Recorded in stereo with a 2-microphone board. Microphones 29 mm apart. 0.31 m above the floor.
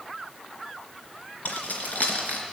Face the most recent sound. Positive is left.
turn(degrees=75)  # may be behind; listen again after turning